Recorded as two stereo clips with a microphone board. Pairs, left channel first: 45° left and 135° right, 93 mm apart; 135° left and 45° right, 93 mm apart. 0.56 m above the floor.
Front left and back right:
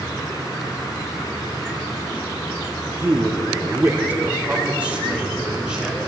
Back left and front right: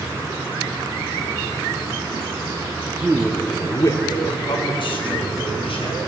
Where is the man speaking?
95° right, 1.1 m; by 6.0 s 145° left, 4 m.